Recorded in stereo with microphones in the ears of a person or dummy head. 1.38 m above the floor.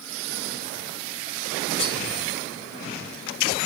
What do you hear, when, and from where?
1.8 s cutlery clinking: 30° left (ahead or behind), 0.9 m